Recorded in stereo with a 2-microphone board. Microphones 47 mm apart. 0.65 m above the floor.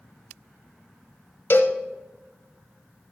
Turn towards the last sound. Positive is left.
turn(degrees=55)  # may be behind; listen again after turning